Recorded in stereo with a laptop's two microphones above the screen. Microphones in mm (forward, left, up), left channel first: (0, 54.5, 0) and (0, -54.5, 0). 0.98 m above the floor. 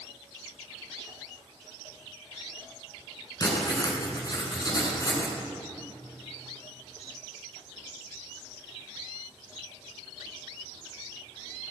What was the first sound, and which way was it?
Writing, 35° left (ahead or behind).